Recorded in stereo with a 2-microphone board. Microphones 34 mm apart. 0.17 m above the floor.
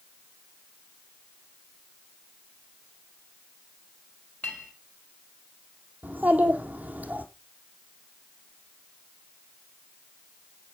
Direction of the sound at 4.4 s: 45° left (ahead or behind).